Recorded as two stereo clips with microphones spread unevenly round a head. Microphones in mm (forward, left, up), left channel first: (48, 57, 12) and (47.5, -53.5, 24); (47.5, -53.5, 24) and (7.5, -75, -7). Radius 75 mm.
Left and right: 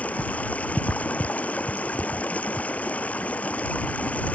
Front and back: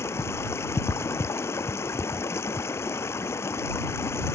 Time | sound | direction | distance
0.0 | running water | 10° left | ?